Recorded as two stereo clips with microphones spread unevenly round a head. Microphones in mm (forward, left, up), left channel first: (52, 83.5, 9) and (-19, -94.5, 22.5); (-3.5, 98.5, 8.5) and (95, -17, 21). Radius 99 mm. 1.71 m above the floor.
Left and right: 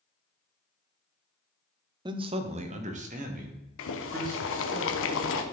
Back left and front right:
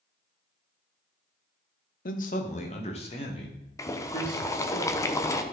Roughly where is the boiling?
Ahead left.